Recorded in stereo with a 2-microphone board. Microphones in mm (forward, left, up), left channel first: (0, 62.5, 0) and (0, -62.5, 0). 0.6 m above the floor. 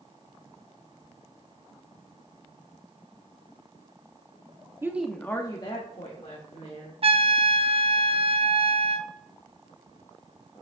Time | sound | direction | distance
4.8 | a woman speaking | 20° right (ahead or behind) | 0.9 m
7.0 | a trumpet | 55° right (ahead or behind) | 0.6 m